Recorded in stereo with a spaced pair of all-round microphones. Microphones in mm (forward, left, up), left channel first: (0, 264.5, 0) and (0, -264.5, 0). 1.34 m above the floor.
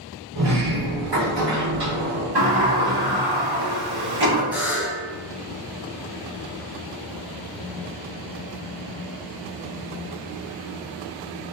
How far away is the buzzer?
About 0.5 m.